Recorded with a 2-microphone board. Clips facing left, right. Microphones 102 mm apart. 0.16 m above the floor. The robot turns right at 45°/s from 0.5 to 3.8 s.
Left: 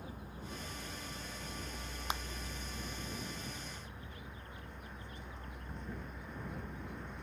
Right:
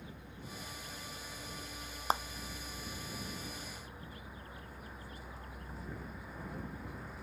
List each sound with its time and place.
0.0 s a vehicle: 40° left (ahead or behind); by 7.2 s 5° right (ahead or behind)
2.1 s a clap: 40° right (ahead or behind); by 2.2 s 45° right (ahead or behind)